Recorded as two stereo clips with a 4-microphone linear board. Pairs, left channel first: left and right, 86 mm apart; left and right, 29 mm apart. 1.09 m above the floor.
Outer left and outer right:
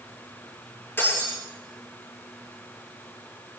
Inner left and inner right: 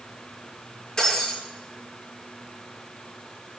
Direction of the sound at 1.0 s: 25° left (ahead or behind).